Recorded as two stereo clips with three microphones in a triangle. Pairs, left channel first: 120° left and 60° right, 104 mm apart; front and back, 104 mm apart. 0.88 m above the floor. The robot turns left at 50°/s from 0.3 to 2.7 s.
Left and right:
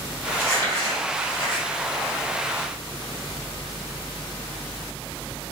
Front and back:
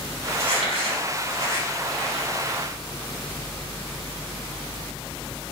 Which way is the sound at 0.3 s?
170° right.